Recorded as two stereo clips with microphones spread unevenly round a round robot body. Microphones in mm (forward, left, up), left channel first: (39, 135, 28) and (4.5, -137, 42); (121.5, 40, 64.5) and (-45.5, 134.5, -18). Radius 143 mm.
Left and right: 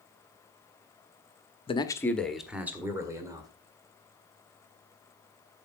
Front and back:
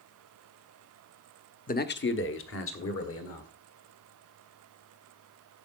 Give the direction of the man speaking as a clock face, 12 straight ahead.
11 o'clock.